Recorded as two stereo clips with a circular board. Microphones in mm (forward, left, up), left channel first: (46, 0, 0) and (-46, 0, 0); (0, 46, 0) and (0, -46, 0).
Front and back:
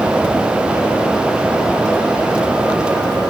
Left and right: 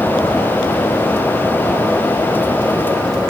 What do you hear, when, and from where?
Only background noise.